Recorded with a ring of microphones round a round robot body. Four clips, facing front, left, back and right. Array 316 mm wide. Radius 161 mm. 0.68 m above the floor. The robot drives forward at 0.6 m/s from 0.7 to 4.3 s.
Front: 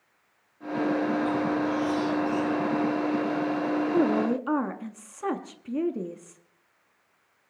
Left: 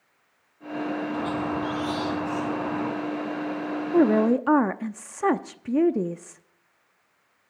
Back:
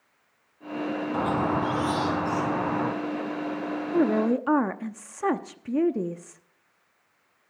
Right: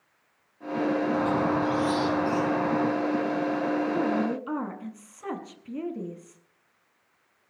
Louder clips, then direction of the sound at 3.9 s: Left 7 dB, back 4 dB; 95° left.